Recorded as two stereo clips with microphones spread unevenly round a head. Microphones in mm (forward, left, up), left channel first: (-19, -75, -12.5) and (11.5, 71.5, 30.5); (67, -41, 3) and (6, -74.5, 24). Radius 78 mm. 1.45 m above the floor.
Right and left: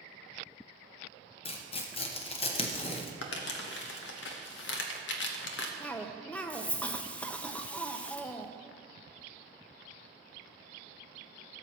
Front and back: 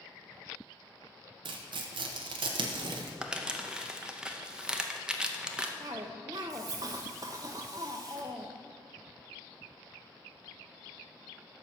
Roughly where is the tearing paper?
Behind right.